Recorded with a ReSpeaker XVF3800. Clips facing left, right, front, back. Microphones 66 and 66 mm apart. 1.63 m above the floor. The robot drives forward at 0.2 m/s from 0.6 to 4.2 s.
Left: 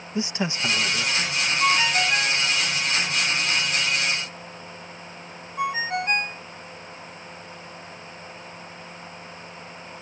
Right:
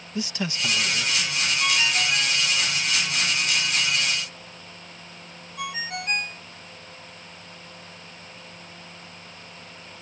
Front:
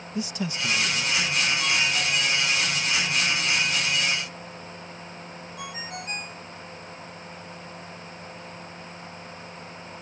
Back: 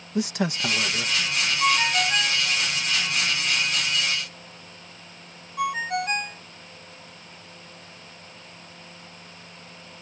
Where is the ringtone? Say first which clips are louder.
Left 4 dB, back 4 dB; 145° left; by 6.4 s 150° left.